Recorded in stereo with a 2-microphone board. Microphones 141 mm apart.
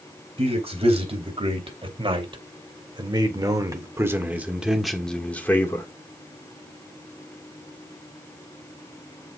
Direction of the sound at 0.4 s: 45° right (ahead or behind).